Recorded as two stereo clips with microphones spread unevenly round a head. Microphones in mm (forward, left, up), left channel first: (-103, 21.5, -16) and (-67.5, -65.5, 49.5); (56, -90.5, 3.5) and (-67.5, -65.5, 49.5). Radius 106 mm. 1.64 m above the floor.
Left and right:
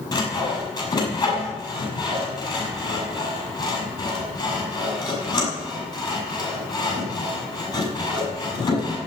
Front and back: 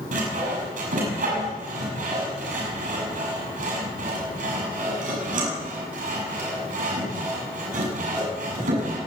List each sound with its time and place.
0.1 s sawing: 165° left, 7.5 m